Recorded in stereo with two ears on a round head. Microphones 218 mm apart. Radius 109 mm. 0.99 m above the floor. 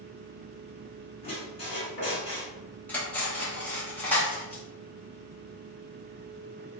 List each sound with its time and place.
1.2 s a squeak: 30° left (ahead or behind), 1.7 m
2.9 s cutlery clinking: 5° left (ahead or behind), 1.0 m